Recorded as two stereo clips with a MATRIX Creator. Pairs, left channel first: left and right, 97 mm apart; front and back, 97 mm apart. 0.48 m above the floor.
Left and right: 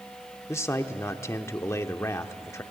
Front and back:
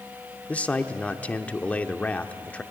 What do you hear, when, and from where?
0.5 s a man speaking: 65° left, 0.9 m